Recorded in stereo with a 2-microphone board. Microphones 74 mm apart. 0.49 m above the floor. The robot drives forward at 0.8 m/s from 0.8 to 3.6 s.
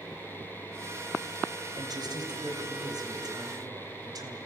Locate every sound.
1.8 s a man speaking: 70° right (ahead or behind), 3 m; by 4.4 s 60° right (ahead or behind), 3.5 m